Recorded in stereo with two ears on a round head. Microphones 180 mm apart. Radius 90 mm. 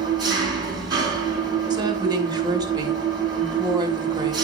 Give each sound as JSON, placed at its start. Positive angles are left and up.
{"t": 0.0, "sound": "an engine running", "side_deg": -20, "distance_m": 2.5}
{"t": 1.7, "sound": "a woman speaking", "side_deg": -20, "distance_m": 1.2}